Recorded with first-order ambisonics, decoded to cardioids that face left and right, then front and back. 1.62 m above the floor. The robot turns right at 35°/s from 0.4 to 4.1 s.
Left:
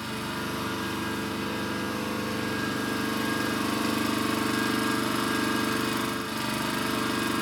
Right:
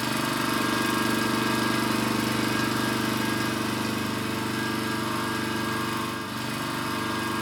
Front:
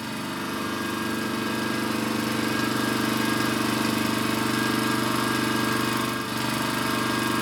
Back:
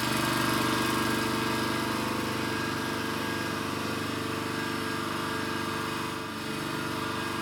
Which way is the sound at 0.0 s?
120° right.